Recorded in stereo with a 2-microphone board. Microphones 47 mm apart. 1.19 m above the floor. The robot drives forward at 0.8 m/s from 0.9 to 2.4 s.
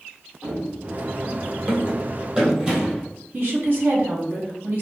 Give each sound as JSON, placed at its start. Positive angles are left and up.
{"t": 0.4, "sound": "running footsteps", "side_deg": -25, "distance_m": 1.5}
{"t": 3.3, "sound": "a woman speaking", "side_deg": -45, "distance_m": 1.1}